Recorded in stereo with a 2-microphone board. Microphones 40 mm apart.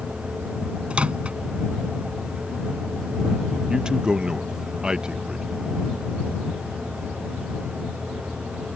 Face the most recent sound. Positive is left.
turn(degrees=-20)  # may be behind; listen again after turning